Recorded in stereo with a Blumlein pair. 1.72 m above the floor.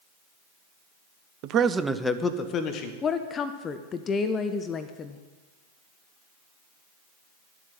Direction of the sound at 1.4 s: 40° right.